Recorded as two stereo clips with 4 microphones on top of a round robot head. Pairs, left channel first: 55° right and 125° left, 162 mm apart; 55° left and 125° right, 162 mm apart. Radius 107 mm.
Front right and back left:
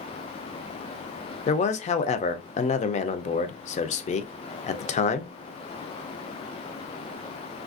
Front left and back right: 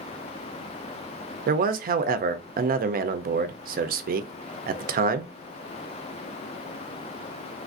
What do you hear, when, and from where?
1.5 s a man speaking: 100° right, 0.5 m